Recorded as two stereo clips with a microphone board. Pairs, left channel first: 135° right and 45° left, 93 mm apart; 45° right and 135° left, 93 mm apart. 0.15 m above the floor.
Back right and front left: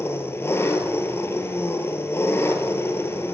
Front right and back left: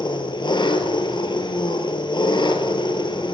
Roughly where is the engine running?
Right.